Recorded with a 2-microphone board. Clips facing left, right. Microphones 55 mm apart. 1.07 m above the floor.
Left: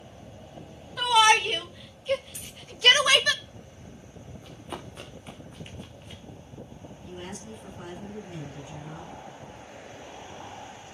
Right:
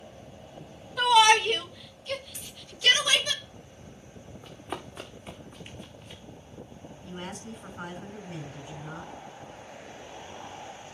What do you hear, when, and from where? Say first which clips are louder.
1.0 s a shout: right 1 dB; 5° left (ahead or behind), 2 m; by 3.3 s 65° left (ahead or behind), 1.1 m
2.3 s a dropped coin: left 1 dB; 5° right (ahead or behind), 4.5 m
4.4 s running footsteps: right 2 dB; 20° right (ahead or behind), 4.5 m; by 6.2 s 10° left (ahead or behind), 3.5 m
7.0 s a woman speaking: right 1 dB; 40° right (ahead or behind), 5.5 m